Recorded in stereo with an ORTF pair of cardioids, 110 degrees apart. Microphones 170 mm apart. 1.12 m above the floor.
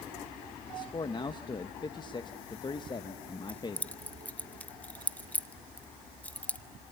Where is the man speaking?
25° left, 1.0 m.